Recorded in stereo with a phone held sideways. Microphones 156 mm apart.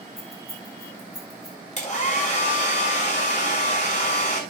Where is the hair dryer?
45° left (ahead or behind), 6 m.